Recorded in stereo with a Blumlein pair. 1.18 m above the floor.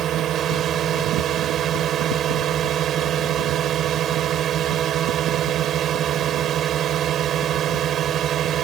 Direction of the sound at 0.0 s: 30° right.